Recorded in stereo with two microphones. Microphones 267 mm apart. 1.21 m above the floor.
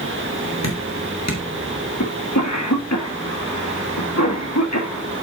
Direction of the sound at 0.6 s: 80° left.